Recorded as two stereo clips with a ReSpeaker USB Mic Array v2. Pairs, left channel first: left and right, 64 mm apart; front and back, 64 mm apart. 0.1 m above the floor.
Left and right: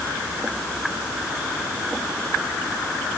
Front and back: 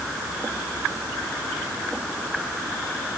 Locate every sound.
Only background noise.